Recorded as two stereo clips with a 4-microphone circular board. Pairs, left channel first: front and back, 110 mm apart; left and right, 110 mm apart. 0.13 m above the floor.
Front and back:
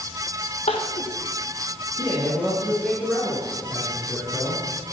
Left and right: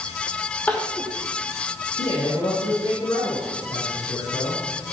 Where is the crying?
10° left, 3 m.